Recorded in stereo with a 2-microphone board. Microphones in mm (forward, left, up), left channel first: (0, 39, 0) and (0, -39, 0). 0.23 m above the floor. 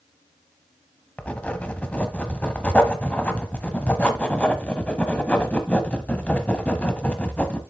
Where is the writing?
15° left (ahead or behind), 0.9 m.